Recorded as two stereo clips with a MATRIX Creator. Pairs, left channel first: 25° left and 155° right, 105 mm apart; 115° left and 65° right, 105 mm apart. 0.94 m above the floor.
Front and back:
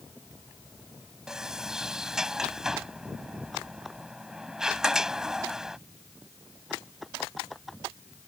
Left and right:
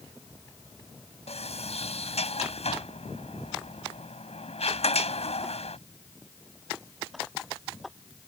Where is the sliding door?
120° left.